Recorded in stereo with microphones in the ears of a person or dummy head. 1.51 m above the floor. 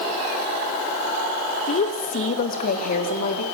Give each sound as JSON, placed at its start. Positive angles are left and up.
{"t": 1.7, "sound": "a woman speaking", "side_deg": 45, "distance_m": 1.6}